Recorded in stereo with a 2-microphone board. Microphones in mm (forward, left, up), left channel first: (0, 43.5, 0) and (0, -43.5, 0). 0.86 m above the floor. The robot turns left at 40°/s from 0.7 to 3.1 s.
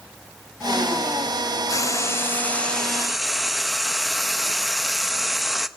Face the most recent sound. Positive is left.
turn(degrees=-5)